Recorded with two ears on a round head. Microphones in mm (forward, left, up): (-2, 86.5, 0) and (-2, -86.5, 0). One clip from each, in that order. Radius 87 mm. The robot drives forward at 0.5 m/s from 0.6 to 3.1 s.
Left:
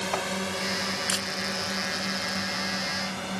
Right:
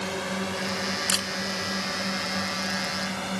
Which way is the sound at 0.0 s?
25° left (ahead or behind).